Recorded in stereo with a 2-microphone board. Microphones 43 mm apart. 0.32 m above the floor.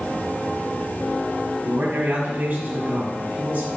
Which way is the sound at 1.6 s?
45° right (ahead or behind).